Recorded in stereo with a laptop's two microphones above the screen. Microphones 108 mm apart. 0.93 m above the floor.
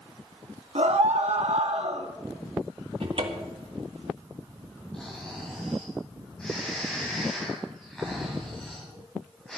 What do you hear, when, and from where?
0.8 s a scream: 75° right (ahead or behind), 1.6 m; by 2.1 s 60° right (ahead or behind), 1.6 m
3.0 s a cupboard door: 55° right (ahead or behind), 1.5 m
4.9 s snoring: 5° left (ahead or behind), 3.5 m